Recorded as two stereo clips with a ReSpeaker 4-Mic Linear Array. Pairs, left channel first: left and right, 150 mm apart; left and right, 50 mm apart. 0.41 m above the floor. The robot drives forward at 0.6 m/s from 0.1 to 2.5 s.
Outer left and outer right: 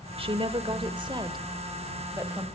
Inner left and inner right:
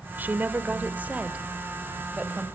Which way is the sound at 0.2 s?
40° right (ahead or behind).